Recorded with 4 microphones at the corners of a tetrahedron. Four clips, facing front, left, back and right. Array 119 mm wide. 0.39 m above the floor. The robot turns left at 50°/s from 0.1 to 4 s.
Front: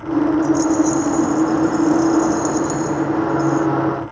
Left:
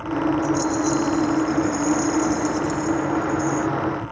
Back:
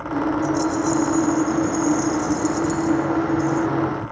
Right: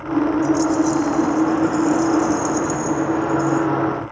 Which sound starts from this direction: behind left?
A rattle, at 0.4 s.